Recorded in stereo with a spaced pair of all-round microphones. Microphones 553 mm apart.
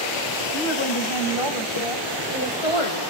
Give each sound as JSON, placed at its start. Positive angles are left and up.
{"t": 0.5, "sound": "a woman speaking", "side_deg": 50, "distance_m": 3.0}